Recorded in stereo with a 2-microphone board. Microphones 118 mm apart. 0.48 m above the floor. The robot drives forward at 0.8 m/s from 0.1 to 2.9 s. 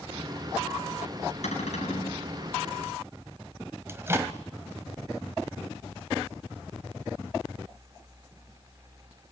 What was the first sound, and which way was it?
A cupboard door, 80° left.